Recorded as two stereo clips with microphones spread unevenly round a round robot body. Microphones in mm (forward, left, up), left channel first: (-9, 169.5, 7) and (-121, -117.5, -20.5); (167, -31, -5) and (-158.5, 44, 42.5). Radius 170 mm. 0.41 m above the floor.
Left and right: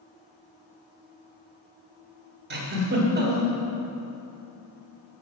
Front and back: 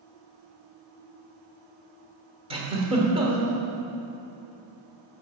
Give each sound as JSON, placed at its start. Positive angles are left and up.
{"t": 2.5, "sound": "a giggle", "azimuth_deg": -120, "distance_m": 1.5}